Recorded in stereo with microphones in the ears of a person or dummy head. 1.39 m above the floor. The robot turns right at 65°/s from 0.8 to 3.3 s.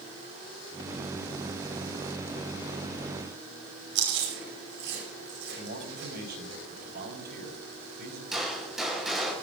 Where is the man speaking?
55° right (ahead or behind), 5 m.